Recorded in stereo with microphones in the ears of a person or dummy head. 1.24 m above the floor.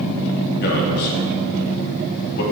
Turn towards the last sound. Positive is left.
turn(degrees=60)  # may be behind; listen again after turning